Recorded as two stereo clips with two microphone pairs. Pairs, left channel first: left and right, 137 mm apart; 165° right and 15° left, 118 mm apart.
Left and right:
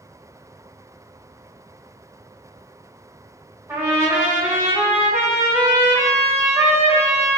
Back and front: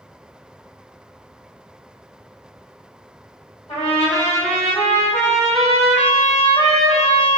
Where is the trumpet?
165° right, 1.7 m.